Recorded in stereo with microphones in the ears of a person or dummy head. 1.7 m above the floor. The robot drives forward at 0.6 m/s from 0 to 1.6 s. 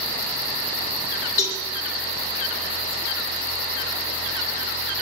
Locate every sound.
1.4 s a cowbell: 25° left (ahead or behind), 3.5 m